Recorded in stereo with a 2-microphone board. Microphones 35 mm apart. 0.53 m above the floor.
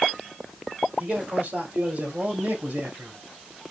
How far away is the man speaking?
About 3 m.